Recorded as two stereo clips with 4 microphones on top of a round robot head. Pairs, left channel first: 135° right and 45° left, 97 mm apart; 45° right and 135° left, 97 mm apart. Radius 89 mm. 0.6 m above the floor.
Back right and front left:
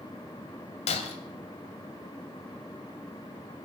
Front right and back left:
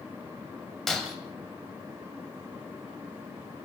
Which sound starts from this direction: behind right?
Breaking glass, at 0.9 s.